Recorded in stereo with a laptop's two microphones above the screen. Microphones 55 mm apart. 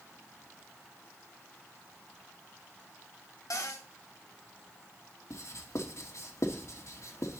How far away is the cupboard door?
About 2.5 m.